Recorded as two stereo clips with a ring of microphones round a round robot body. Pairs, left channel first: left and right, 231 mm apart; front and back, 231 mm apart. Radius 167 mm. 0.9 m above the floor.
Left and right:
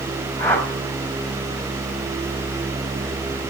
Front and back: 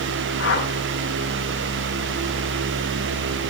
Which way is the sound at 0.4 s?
10° left.